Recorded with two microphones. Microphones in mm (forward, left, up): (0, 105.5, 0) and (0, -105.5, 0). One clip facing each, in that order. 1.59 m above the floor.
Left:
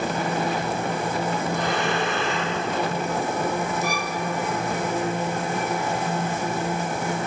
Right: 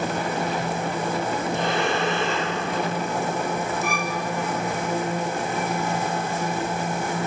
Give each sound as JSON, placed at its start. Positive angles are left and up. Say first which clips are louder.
{"t": 1.5, "sound": "breathing", "louder": "right 1 dB", "side_deg": -25, "distance_m": 9.5}
{"t": 3.8, "sound": "a violin", "louder": "even", "side_deg": -55, "distance_m": 1.5}